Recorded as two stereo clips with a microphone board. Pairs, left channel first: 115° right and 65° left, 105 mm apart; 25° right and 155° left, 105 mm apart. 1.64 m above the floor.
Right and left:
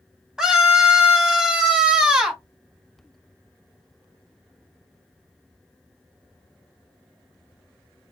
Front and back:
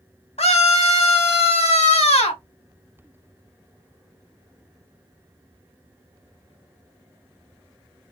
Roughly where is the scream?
Ahead.